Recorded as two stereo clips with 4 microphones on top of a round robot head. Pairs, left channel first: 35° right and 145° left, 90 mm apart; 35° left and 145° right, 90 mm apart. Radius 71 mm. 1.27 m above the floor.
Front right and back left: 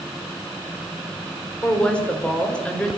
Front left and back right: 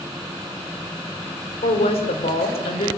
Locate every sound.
1.6 s a woman speaking: 40° left, 4.5 m